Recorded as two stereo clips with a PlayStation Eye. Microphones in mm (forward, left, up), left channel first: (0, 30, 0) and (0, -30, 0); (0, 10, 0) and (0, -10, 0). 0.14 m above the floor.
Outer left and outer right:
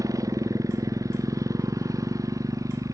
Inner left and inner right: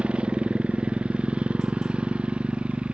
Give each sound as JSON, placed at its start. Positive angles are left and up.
{"t": 0.0, "sound": "a motorcycle", "side_deg": -65}